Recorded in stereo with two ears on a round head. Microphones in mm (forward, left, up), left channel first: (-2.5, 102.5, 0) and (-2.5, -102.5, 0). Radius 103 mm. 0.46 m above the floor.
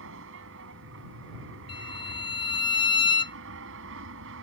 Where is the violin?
20° left (ahead or behind).